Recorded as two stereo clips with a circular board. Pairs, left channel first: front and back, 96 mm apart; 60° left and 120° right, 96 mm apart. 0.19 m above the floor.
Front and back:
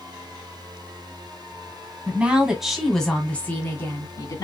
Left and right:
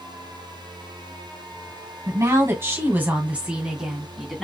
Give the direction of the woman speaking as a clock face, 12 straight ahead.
4 o'clock.